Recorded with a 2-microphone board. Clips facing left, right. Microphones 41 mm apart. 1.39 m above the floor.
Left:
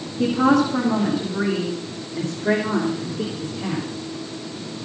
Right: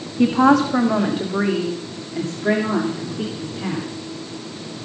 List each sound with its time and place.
0.2 s a woman speaking: 85° right, 2 m; by 3.9 s 30° right (ahead or behind), 3.5 m